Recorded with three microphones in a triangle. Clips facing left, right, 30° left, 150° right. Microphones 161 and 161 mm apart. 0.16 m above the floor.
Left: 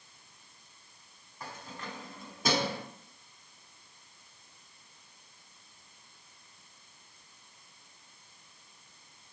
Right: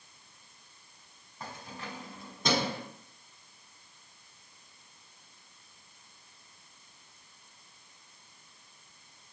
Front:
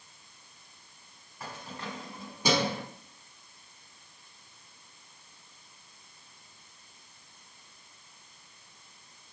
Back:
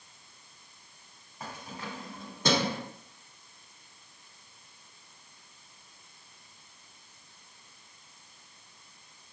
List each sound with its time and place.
1.4 s keys jangling: 120° right, 1.1 m; by 2.8 s 45° left, 1.1 m